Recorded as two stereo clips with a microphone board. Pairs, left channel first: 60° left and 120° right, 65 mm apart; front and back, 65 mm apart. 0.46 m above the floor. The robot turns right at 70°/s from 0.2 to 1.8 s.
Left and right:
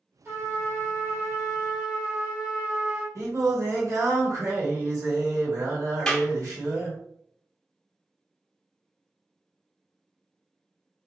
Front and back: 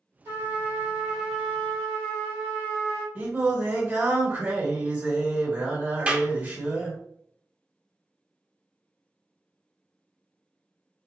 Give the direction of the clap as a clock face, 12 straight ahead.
8 o'clock.